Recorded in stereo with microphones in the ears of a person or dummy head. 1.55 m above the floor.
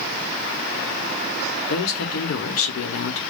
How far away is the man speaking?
About 1.1 m.